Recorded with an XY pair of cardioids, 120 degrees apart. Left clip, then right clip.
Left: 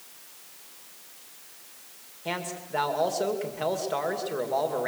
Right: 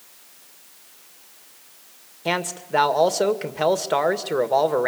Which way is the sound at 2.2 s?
50° right.